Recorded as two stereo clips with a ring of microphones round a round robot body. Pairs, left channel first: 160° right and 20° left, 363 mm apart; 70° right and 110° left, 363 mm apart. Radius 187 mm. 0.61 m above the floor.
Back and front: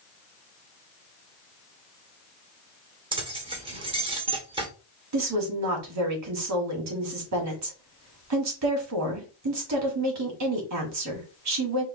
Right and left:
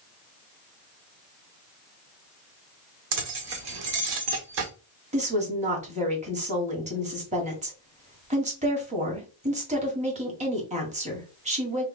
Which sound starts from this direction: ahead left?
A woman speaking, at 5.1 s.